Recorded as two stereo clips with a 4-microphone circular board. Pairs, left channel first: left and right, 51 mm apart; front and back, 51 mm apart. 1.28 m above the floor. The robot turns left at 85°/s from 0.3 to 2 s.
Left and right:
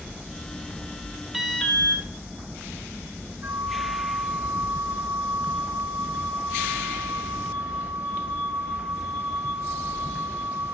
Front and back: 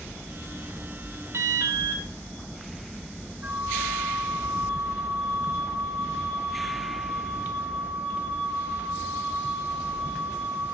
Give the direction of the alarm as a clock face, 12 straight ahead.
6 o'clock.